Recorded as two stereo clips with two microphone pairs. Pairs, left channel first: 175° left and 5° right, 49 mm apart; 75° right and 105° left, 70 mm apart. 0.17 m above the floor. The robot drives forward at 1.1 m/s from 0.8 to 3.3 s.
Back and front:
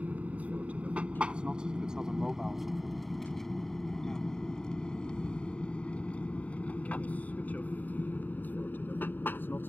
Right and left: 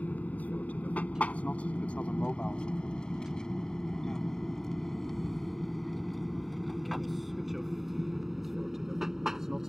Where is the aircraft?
25° right; by 9.7 s 175° right.